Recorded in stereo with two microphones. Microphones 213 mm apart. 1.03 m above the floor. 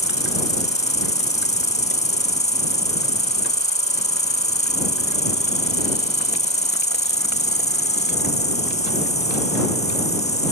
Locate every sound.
0.0 s an insect: 30° left (ahead or behind)